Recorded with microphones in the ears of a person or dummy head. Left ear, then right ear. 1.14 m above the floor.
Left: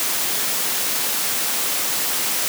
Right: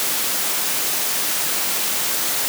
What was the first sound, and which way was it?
Only background noise.